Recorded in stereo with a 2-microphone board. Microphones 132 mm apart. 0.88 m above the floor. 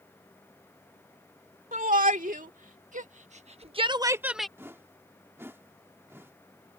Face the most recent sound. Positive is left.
turn(degrees=-20)  # may be behind; listen again after turning